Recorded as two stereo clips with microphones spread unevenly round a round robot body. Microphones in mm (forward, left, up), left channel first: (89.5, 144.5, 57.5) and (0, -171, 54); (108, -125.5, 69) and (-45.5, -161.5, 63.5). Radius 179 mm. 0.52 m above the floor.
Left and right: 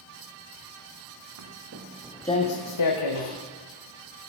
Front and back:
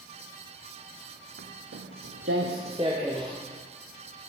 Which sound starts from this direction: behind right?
Footsteps, at 1.4 s.